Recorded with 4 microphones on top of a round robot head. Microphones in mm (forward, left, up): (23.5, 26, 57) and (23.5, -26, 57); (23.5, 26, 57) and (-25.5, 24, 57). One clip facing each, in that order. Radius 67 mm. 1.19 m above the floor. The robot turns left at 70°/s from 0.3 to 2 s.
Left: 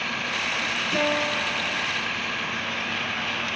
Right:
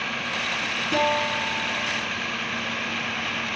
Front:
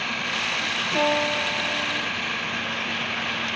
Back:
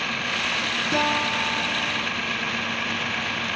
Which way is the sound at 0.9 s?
140° right.